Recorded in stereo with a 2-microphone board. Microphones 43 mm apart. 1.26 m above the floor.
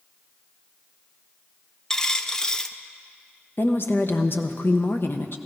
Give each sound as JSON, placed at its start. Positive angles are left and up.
{"t": 1.9, "sound": "a dropped coin", "side_deg": 15, "distance_m": 0.5}
{"t": 3.6, "sound": "a woman speaking", "side_deg": 60, "distance_m": 1.0}